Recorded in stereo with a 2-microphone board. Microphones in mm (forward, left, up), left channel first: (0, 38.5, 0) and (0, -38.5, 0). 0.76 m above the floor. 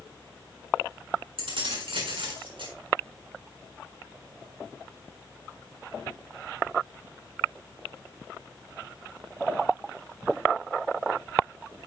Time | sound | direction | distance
1.4 | keys jangling | 85° right | 6.5 m